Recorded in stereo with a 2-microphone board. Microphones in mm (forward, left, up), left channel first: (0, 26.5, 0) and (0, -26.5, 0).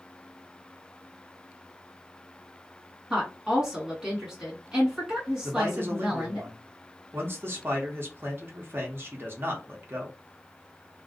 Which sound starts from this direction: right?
A man speaking, at 5.4 s.